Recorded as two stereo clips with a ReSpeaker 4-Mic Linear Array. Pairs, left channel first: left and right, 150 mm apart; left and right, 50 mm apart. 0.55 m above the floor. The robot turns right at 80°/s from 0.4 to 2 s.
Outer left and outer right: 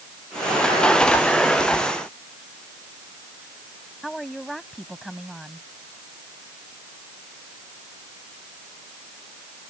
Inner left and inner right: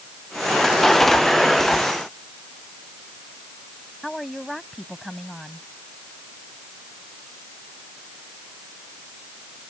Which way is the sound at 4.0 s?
Centre (ahead or behind).